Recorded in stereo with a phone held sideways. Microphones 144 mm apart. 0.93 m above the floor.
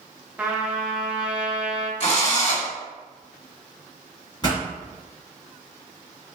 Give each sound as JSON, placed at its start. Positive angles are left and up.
{"t": 0.4, "sound": "a trumpet", "side_deg": -10, "distance_m": 0.5}
{"t": 2.0, "sound": "a drill", "side_deg": 40, "distance_m": 1.4}
{"t": 4.4, "sound": "a pop", "side_deg": 30, "distance_m": 1.7}